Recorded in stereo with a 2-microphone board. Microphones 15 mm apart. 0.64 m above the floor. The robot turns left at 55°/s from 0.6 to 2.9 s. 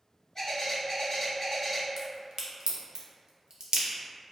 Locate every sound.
0.3 s a bird: 75° left, 1.1 m; by 1.9 s 5° left, 1.1 m
2.0 s a crack: 25° right (ahead or behind), 0.5 m; by 3.9 s 70° right (ahead or behind), 0.5 m